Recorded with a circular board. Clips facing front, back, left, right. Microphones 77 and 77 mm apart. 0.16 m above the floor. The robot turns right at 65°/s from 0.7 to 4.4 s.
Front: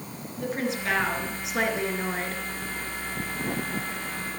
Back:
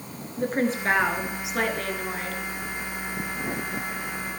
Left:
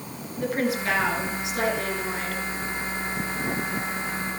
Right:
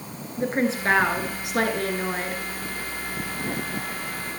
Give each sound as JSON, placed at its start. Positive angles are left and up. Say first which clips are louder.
{"t": 0.4, "sound": "a woman speaking", "louder": "back 4 dB, right 2 dB", "azimuth_deg": -145, "distance_m": 2.0}